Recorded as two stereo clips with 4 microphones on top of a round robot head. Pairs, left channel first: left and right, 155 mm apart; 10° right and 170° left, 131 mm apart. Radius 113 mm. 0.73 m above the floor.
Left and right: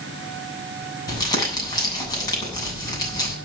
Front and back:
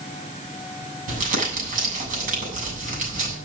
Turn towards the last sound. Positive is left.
turn(degrees=155)